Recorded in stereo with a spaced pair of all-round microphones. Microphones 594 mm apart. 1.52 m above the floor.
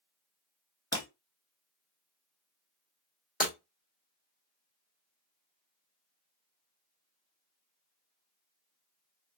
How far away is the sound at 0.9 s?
About 2 m.